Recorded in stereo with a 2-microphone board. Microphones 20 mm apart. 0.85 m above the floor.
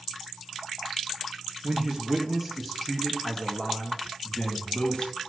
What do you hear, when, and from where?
1.6 s a man speaking: 25° right (ahead or behind), 1.4 m; by 5.2 s 50° left (ahead or behind), 2 m